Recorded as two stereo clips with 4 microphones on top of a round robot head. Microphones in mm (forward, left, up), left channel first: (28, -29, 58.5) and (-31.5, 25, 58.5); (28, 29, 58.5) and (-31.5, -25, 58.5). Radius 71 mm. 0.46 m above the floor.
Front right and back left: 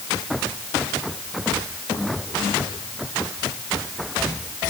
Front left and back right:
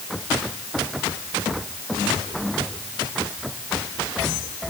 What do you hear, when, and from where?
Only background noise.